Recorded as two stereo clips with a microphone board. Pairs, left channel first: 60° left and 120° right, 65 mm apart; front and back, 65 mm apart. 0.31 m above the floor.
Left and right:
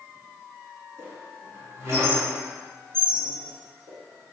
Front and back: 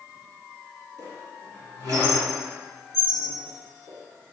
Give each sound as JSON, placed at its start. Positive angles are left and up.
{"t": 1.0, "sound": "a squeak", "azimuth_deg": -165, "distance_m": 1.6}